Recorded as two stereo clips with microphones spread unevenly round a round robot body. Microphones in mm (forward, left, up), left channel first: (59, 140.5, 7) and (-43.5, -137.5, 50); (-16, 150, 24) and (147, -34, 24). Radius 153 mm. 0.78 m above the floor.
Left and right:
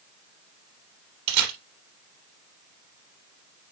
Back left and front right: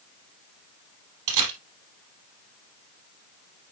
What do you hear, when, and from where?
1.3 s a camera shutter: 75° right, 4 m